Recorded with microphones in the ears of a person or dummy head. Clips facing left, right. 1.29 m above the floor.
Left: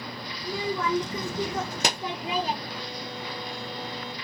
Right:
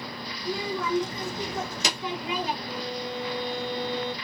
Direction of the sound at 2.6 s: 5° left (ahead or behind).